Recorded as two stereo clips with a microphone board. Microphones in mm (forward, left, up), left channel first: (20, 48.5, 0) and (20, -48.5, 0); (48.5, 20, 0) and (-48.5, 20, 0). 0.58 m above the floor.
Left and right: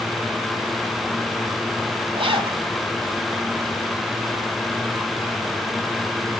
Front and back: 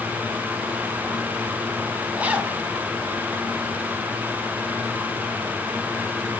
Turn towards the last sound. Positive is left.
turn(degrees=-105)